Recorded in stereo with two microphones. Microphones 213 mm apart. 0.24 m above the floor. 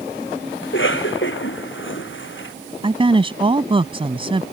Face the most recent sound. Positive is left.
turn(degrees=-25)  # may be behind; listen again after turning